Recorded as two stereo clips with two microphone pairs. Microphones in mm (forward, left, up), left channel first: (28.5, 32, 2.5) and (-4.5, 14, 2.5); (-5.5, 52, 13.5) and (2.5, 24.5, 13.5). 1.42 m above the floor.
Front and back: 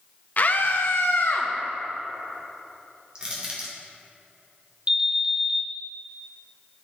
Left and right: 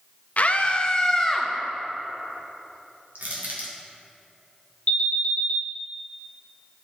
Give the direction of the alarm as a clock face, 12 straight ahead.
7 o'clock.